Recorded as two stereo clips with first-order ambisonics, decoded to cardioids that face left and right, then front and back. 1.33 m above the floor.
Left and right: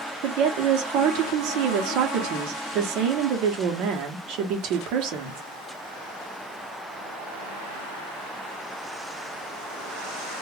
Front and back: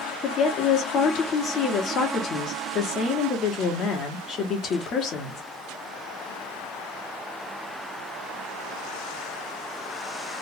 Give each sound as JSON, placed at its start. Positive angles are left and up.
{"t": 0.2, "sound": "a woman speaking", "azimuth_deg": -60, "distance_m": 1.0}